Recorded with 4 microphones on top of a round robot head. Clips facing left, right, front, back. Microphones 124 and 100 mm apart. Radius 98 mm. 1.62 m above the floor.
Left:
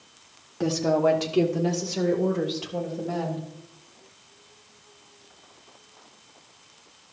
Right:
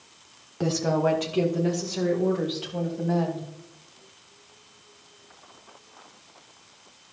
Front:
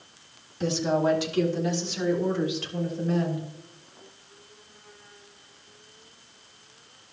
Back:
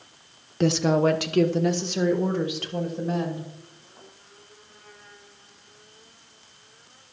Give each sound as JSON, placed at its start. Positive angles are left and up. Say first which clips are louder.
{"t": 0.6, "sound": "a woman speaking", "louder": "left 2 dB, back 4 dB", "azimuth_deg": 180, "distance_m": 0.5}